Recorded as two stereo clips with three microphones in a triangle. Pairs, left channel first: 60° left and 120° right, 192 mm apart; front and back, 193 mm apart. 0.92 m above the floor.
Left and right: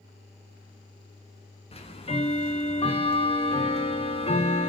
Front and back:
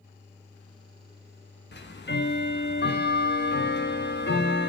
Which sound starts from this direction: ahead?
Ticking, at 1.7 s.